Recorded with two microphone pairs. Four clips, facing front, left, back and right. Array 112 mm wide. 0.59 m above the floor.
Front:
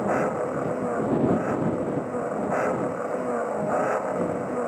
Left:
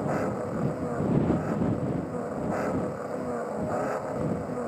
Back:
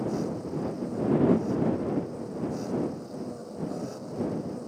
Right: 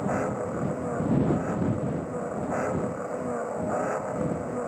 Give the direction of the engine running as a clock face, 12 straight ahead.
12 o'clock.